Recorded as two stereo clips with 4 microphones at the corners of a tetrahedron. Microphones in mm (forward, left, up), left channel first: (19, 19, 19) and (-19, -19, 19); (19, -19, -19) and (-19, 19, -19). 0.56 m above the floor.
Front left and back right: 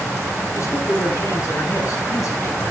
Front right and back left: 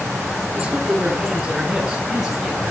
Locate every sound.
0.5 s a man speaking: 60° left, 7 m; by 2.7 s 50° left, 5.5 m